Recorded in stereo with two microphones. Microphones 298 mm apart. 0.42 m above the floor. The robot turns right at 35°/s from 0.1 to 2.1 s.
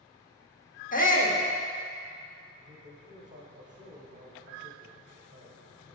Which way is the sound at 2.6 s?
25° right (ahead or behind).